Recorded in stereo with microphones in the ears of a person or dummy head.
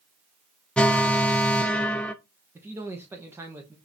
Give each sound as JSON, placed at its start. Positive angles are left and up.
{"t": 0.8, "sound": "an alarm", "side_deg": 0, "distance_m": 0.5}
{"t": 2.5, "sound": "a man speaking", "side_deg": -10, "distance_m": 1.1}